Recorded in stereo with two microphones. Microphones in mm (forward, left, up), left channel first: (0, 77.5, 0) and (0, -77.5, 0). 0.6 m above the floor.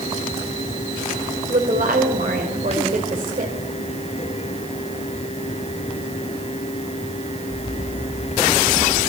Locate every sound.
1.5 s a woman speaking: 60° right (ahead or behind), 3 m